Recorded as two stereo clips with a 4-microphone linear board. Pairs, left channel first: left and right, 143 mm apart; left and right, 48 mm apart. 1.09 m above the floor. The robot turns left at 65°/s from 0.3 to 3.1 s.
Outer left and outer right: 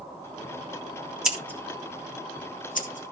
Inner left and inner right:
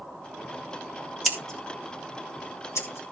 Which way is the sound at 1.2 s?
5° right (ahead or behind).